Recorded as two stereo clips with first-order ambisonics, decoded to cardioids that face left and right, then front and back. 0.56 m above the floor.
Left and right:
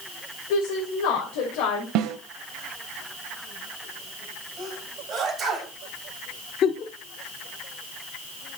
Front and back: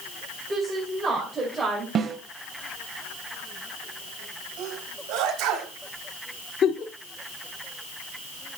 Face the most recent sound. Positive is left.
turn(degrees=50)